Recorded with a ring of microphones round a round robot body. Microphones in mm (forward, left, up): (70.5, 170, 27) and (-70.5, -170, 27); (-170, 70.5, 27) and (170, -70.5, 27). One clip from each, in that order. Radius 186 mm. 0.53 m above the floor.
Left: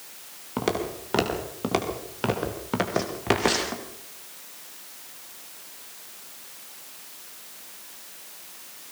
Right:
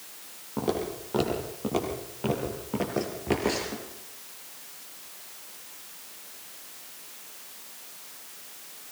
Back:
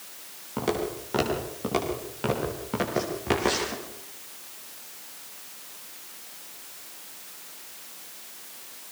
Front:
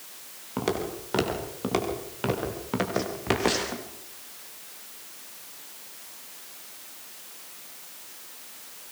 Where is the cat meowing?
I don't hear a cat meowing.